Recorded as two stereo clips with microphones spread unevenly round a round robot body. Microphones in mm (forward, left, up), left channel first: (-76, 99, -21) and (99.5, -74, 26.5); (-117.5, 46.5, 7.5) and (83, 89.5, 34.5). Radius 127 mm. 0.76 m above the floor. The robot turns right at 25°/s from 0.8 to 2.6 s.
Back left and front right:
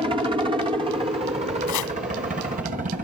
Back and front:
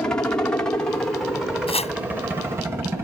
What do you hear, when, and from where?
0.0 s a helicopter: 110° right; by 3.0 s 65° right
1.7 s chopping: 130° left; by 1.9 s 135° left